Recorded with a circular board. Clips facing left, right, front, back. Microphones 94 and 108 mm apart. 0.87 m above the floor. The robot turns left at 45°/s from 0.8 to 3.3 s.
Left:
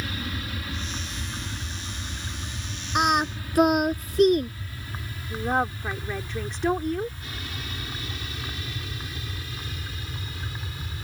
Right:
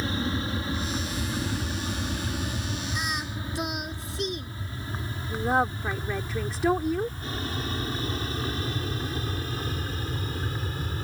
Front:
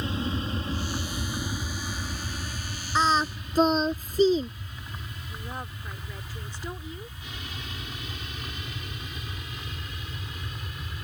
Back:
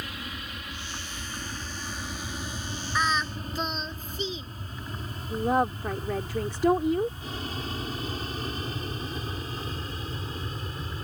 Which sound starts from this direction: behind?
A woman speaking, at 5.3 s.